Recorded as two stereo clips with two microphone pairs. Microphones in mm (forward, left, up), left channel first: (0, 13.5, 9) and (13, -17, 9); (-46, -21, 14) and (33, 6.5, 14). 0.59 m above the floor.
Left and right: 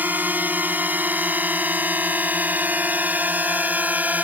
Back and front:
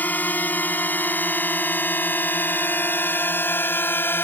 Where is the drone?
90° right; by 4.2 s 100° right.